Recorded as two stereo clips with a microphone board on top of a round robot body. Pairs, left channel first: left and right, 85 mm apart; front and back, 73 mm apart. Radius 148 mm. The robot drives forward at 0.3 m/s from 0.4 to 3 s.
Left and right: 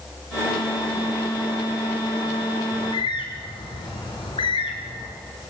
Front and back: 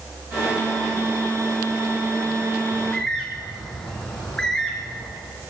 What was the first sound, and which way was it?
A bird, 80° left.